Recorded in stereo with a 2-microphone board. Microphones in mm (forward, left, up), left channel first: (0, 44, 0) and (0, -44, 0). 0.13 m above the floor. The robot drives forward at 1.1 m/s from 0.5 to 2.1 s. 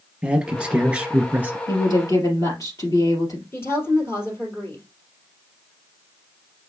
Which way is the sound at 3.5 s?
30° left (ahead or behind).